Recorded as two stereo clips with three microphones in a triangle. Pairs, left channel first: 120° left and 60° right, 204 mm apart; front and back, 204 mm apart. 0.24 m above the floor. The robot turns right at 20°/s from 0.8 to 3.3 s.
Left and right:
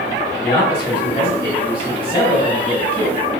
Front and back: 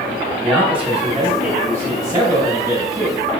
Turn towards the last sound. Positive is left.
turn(degrees=150)